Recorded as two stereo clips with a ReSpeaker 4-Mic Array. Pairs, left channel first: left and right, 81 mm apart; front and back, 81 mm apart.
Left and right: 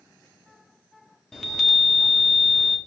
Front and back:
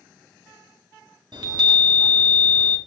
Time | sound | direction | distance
1.3 | a chime | 175° left | 1.5 m